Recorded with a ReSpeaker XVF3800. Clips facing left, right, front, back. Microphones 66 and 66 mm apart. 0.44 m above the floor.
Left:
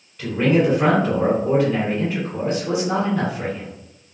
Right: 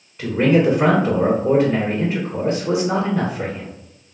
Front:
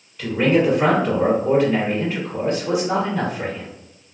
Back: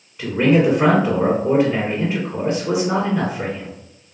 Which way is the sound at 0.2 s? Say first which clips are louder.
Right 2 dB, back 2 dB; 130° right.